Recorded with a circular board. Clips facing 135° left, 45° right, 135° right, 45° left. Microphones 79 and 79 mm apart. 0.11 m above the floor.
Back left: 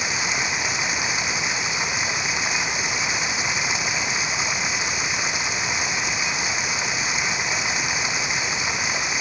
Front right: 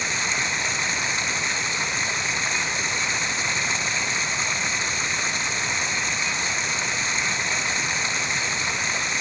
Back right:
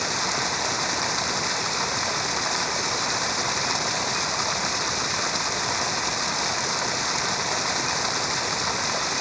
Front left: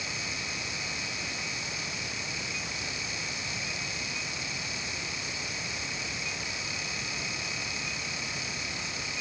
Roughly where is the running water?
Behind right.